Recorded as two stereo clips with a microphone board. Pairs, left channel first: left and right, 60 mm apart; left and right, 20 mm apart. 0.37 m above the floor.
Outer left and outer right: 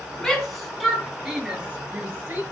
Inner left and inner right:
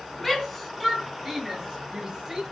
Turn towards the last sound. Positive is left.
turn(degrees=-35)  # may be behind; listen again after turning